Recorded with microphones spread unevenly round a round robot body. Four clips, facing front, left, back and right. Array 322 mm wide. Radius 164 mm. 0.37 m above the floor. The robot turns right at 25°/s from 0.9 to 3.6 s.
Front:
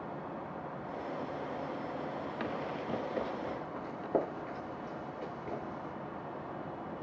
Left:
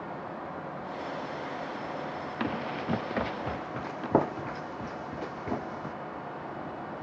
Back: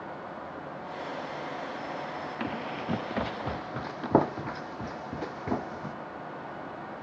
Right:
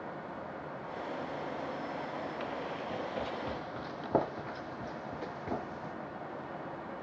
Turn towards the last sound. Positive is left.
turn(degrees=160)